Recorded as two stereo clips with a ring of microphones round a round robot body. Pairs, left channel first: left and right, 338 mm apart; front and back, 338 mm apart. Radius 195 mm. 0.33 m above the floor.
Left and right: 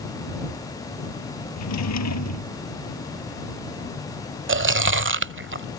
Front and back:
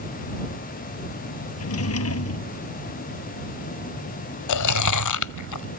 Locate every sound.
1.6 s a drawer: 50° left
4.5 s chewing: 35° right